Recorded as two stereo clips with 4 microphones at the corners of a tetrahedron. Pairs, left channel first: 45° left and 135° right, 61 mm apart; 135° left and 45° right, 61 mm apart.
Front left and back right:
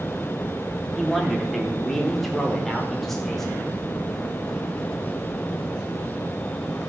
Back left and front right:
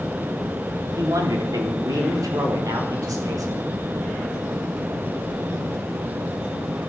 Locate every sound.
1.0 s a man speaking: 45° right, 3 m; by 3.8 s 40° right, 5.5 m